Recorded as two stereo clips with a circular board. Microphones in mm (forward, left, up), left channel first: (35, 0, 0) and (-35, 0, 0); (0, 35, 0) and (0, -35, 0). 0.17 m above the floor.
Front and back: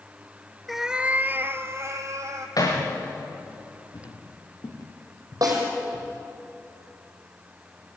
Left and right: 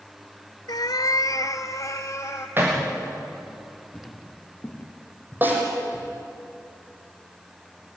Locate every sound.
0.7 s a cat meowing: 90° left, 0.6 m; by 2.5 s 140° left, 1.7 m
2.6 s hammering: 30° right, 5.5 m
3.9 s footsteps: 15° left, 3.5 m; by 6.1 s 40° left, 3.5 m
5.4 s a snare drum: 150° right, 6 m